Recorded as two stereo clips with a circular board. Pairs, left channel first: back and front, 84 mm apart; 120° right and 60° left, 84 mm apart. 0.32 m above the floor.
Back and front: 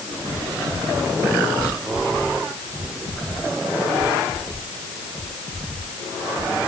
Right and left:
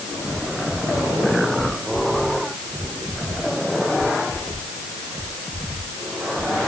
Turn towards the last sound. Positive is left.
No sound to turn to.